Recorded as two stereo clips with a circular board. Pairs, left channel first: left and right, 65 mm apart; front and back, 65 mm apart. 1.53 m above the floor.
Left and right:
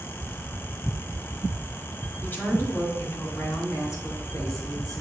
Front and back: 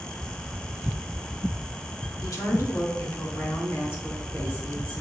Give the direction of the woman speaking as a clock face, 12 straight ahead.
11 o'clock.